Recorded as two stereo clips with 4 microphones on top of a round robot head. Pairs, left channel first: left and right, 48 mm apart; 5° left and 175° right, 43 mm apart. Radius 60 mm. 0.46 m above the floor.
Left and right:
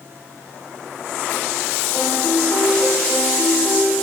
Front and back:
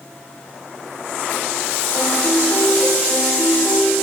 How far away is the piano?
About 2 m.